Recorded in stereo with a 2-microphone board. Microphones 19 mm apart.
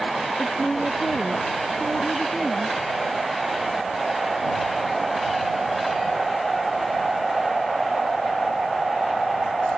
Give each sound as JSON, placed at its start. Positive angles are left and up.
{"t": 0.4, "sound": "a woman speaking", "side_deg": 15}